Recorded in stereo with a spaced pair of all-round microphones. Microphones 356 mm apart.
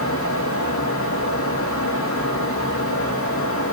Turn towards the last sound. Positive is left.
turn(degrees=35)  # may be behind; listen again after turning